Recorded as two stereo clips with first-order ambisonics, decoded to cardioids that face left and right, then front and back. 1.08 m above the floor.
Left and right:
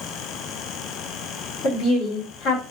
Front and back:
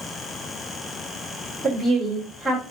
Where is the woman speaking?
90° left, 3 m.